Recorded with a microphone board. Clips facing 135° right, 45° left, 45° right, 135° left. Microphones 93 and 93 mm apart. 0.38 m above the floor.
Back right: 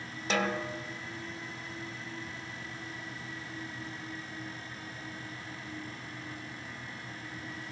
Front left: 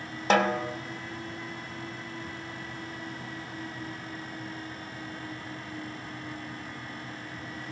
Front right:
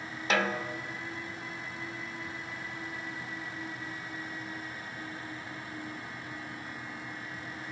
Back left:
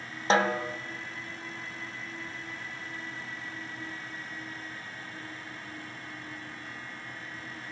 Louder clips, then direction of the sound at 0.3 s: Front left 7 dB, back left 5 dB; 75° left.